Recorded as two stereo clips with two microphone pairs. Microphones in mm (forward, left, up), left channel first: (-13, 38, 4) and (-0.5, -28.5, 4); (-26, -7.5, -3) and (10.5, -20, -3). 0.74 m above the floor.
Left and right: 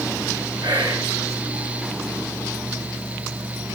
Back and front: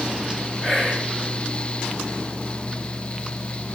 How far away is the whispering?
About 9 m.